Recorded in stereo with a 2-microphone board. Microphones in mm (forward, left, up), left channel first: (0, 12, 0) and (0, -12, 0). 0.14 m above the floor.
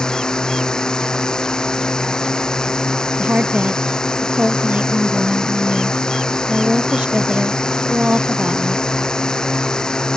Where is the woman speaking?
65° right (ahead or behind).